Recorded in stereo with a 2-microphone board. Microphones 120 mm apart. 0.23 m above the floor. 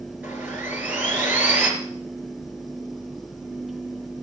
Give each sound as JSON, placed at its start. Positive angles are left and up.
{"t": 0.2, "sound": "sawing", "side_deg": -15, "distance_m": 3.0}